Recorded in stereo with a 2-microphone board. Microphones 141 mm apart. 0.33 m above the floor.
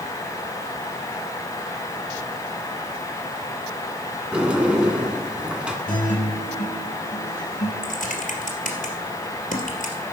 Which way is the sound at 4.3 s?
10° right (ahead or behind).